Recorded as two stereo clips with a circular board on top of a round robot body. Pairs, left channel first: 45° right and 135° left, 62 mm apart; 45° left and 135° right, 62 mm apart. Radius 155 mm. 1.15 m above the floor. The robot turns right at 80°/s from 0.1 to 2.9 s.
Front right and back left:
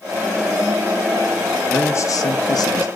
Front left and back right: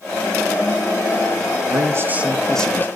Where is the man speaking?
105° right, 1.2 m; by 2.9 s 10° right, 1.2 m.